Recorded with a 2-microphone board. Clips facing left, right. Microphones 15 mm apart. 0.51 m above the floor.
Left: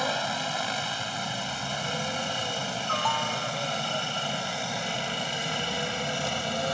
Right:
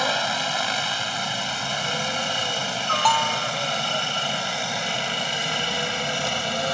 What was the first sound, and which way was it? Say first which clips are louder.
A helicopter: right 5 dB; 30° right (ahead or behind).